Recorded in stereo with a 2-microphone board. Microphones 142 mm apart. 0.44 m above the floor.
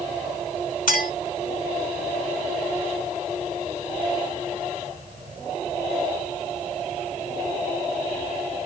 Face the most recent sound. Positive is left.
turn(degrees=75)  # may be behind; listen again after turning